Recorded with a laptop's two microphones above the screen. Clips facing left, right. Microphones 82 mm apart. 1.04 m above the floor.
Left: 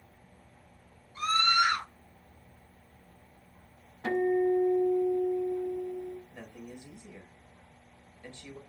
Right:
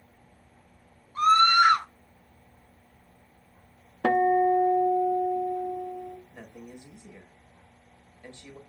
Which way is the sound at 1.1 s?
45° right (ahead or behind).